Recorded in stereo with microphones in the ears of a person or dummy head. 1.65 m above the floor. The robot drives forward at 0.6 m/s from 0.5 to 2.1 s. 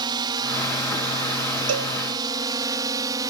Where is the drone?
25° right (ahead or behind); by 3.3 s 20° right (ahead or behind).